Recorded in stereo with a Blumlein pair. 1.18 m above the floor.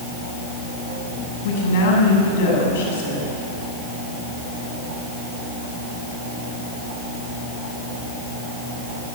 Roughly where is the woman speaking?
Ahead left.